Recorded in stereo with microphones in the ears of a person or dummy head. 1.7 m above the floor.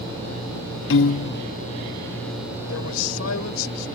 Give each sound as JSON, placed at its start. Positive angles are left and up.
{"t": 0.9, "sound": "a piano", "side_deg": 70}
{"t": 2.7, "sound": "a man speaking", "side_deg": 80}